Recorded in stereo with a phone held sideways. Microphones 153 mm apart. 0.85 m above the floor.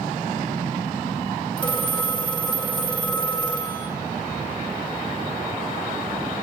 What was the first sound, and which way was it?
A phone ringing, 30° left (ahead or behind).